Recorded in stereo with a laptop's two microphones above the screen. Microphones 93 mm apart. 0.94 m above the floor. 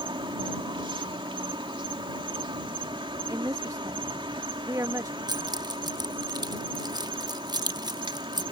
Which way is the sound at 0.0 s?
65° right (ahead or behind).